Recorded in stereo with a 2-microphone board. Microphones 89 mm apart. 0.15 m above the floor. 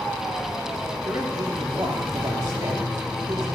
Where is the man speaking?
60° right (ahead or behind), 6 m.